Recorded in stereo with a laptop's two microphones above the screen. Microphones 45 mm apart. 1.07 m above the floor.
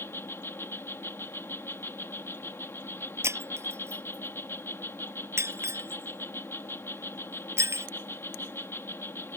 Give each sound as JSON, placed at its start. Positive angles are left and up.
{"t": 0.0, "sound": "an insect", "side_deg": 65}
{"t": 3.2, "sound": "breaking glass", "side_deg": -75}